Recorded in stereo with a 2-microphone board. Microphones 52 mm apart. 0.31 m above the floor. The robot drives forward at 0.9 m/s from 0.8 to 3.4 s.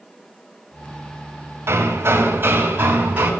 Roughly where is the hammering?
Right.